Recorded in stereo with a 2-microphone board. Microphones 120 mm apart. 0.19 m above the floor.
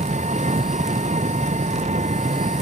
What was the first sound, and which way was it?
An engine running, 75° right (ahead or behind).